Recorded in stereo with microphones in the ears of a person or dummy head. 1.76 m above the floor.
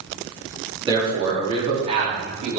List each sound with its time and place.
0.9 s a man speaking: 20° right (ahead or behind), 3.5 m; by 2.6 s 40° right (ahead or behind), 4 m